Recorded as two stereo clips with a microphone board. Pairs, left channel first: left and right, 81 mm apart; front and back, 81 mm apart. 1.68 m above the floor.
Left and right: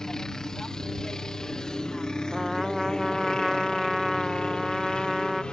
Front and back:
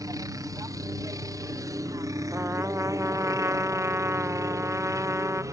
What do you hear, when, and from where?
0.0 s a helicopter: 170° left; by 5.5 s 165° left
2.3 s a trumpet: 175° right